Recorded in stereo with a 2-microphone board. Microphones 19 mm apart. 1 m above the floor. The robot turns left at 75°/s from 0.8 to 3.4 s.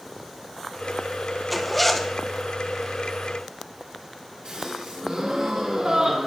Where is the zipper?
Centre (ahead or behind), 0.7 m; by 2.1 s 15° left (ahead or behind), 0.7 m.